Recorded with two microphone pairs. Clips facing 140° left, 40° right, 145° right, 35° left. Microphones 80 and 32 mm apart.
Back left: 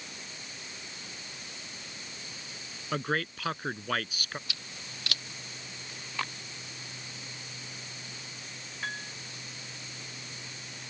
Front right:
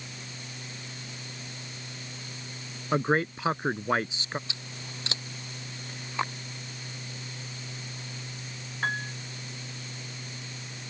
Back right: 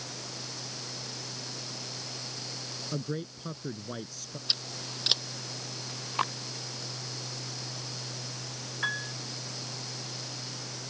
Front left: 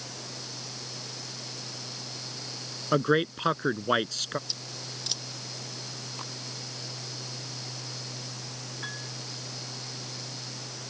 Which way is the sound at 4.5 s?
105° right.